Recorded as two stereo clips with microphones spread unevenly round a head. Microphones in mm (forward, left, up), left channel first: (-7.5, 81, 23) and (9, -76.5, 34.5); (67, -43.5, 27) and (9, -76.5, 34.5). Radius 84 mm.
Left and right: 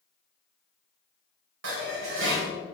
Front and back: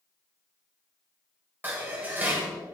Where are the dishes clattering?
90° right, 4.5 m.